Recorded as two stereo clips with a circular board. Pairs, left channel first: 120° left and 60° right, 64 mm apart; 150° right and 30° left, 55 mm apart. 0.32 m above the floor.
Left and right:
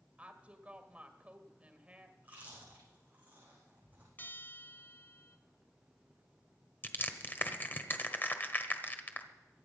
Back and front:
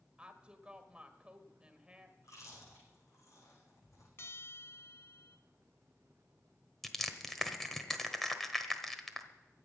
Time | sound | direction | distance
0.2 | a woman speaking | 15° right | 1.6 m
2.2 | chewing | 125° right | 7.5 m
4.2 | a bell | 175° left | 1.0 m
6.8 | crushing | 130° left | 1.3 m